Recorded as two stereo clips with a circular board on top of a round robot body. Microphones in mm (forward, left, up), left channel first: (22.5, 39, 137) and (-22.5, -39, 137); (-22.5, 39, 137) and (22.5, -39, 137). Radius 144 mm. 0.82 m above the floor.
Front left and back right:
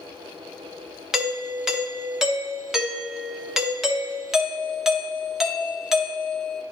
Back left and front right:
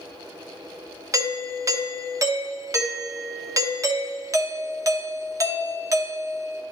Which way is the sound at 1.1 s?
35° right.